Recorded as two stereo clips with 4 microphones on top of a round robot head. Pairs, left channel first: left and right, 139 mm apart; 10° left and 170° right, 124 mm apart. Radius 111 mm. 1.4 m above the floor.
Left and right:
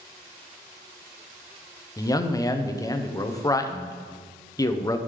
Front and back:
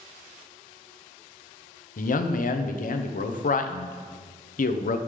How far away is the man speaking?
About 0.8 m.